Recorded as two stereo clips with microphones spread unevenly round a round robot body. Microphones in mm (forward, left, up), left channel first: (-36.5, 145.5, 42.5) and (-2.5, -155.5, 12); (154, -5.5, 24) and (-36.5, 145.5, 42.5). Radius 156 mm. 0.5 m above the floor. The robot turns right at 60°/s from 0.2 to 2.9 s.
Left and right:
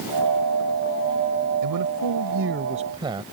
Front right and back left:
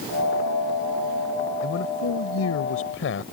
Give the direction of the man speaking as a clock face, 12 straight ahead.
3 o'clock.